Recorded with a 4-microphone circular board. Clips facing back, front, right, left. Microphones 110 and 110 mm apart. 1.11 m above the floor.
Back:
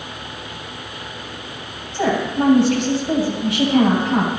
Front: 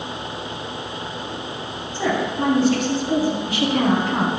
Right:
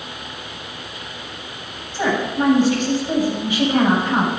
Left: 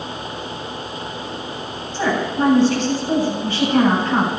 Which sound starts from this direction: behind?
A woman speaking, at 1.9 s.